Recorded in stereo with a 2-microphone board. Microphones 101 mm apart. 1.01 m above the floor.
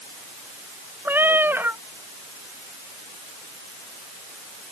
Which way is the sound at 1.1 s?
20° right (ahead or behind).